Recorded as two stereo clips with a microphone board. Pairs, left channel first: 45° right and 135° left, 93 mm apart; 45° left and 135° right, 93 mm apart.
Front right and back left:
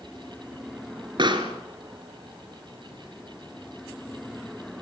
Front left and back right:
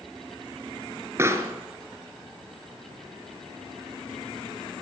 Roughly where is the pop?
Behind.